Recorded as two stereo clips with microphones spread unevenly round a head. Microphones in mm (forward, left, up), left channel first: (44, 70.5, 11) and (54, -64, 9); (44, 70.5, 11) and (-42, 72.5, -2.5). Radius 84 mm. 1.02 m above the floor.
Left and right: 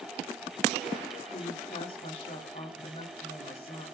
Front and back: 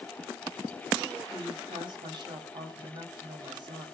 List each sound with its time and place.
1.3 s a woman speaking: 150° left, 6.5 m